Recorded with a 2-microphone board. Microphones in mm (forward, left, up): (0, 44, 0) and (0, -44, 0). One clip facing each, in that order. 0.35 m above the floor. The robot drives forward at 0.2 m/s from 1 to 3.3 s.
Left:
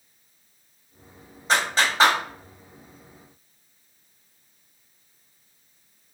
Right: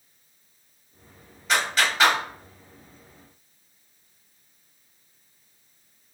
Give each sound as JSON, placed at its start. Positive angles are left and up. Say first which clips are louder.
{"t": 1.5, "sound": "a clap", "louder": "left 1 dB", "side_deg": 35, "distance_m": 1.3}